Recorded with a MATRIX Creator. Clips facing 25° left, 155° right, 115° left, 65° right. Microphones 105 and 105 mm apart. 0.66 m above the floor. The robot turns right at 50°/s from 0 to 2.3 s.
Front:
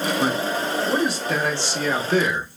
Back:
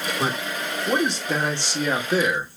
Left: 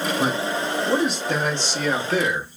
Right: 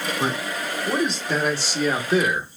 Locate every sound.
0.2 s a man speaking: 160° left, 0.9 m; by 2.6 s 95° right, 0.9 m